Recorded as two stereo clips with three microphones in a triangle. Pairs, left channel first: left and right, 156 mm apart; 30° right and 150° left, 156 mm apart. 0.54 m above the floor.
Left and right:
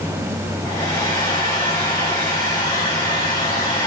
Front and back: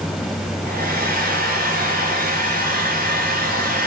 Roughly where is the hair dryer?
Behind.